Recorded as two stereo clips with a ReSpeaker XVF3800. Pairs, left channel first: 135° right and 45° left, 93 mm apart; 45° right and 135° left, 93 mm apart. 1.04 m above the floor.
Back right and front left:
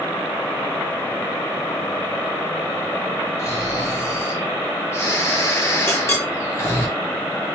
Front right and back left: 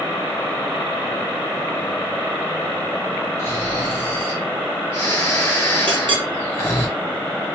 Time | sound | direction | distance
3.4 | snoring | 90° right | 0.8 m
5.9 | a clink | 165° left | 0.9 m